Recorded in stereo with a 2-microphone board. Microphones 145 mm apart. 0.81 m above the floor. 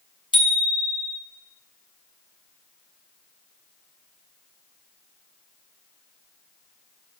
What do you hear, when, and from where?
0.3 s a bicycle bell: 35° left (ahead or behind), 5.5 m